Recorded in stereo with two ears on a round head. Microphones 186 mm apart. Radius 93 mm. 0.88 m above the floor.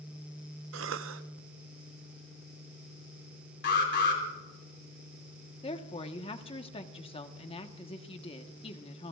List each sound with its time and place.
0.7 s a cough: 70° right (ahead or behind), 1.0 m
3.6 s an alarm: 55° left (ahead or behind), 3.5 m
5.6 s a woman speaking: 30° left (ahead or behind), 1.2 m